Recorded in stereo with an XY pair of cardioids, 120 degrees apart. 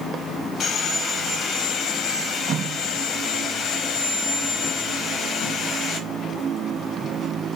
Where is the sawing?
50° left, 0.8 m.